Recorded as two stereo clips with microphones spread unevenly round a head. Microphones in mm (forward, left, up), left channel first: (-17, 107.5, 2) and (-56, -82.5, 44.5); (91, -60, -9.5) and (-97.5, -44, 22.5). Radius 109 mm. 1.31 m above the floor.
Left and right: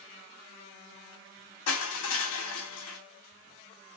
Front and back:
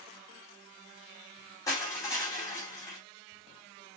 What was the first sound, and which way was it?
Crushing, 75° left.